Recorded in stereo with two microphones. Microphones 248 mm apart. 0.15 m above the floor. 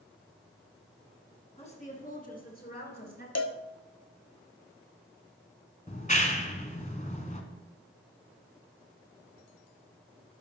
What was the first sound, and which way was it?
A woman speaking, 25° left (ahead or behind).